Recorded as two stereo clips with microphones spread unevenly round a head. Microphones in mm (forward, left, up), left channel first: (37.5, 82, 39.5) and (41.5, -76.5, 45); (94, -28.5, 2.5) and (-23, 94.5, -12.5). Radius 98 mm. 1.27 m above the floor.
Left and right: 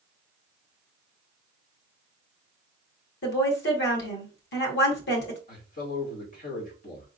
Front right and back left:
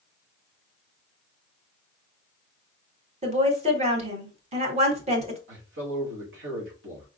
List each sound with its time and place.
3.2 s a woman speaking: 80° left, 1.7 m
5.5 s a man speaking: 130° left, 2 m